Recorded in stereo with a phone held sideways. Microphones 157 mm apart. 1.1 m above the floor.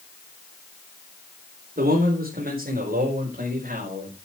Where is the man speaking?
75° right (ahead or behind), 3.5 m; by 4.2 s 65° right (ahead or behind), 5 m.